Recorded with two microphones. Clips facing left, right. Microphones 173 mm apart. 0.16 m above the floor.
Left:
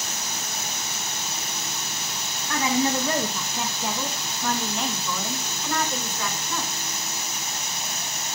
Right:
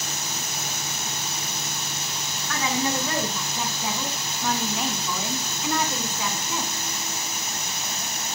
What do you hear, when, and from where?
2.5 s a woman speaking: 10° left (ahead or behind), 1.7 m; by 6.7 s 20° right (ahead or behind), 1.9 m